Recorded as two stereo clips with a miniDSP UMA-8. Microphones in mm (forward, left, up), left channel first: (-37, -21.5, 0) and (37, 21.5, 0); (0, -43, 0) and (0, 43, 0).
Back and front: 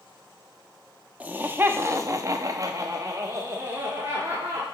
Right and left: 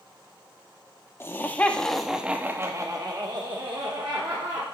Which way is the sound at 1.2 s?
35° right.